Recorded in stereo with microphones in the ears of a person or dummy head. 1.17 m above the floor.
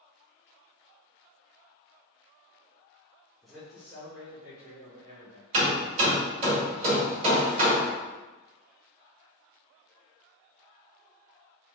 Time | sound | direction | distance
3.4 | a man speaking | centre (ahead or behind) | 0.8 m
5.5 | hammering | 50° right (ahead or behind) | 1.9 m